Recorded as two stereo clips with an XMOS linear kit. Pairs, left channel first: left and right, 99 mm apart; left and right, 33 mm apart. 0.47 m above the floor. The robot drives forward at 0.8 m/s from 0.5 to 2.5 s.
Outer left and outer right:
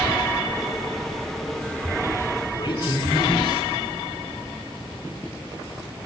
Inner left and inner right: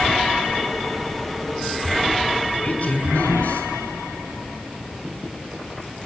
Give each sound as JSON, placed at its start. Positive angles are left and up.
{"t": 2.5, "sound": "a man speaking", "side_deg": 40, "distance_m": 5.5}